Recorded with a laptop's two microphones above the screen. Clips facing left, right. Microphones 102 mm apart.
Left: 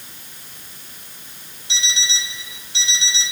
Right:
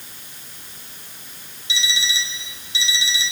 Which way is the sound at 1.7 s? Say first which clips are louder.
Right 1 dB; 60° left (ahead or behind).